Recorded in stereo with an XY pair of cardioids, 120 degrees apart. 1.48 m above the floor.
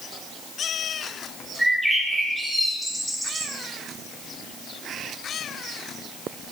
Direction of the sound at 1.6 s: Straight ahead.